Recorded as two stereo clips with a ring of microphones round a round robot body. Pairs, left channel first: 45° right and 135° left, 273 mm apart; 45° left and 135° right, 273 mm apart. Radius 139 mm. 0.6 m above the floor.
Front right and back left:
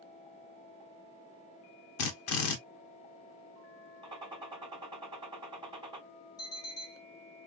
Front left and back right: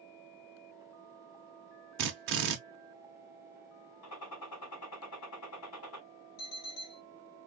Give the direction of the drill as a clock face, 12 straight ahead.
3 o'clock.